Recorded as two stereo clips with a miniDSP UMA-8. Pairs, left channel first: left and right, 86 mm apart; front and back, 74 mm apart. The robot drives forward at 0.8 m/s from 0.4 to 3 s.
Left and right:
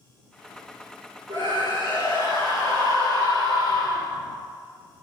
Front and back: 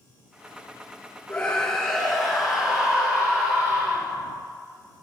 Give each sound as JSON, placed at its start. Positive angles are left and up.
{"t": 1.3, "sound": "a scream", "azimuth_deg": -70, "distance_m": 2.5}